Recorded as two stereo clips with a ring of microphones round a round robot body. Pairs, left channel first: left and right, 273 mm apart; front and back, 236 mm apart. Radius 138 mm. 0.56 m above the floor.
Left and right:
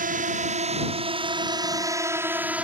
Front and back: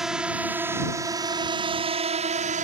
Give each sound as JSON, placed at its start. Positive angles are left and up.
{"t": 0.0, "sound": "a drone", "azimuth_deg": -95}